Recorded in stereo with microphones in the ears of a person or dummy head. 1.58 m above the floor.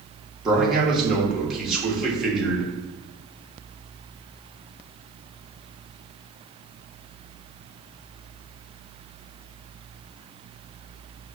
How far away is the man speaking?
About 1.5 m.